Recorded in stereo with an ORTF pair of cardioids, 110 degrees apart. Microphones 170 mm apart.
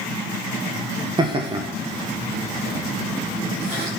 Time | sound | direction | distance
1.2 | laughter | 30° right | 1.0 m